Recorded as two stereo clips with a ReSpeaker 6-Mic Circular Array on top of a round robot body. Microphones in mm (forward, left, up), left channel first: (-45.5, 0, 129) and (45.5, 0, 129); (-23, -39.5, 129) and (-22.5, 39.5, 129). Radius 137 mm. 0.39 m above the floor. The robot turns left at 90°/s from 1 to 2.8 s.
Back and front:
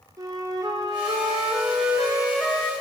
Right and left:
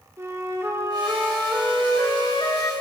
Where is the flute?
40° left, 1.5 m; by 2.7 s 115° right, 1.5 m.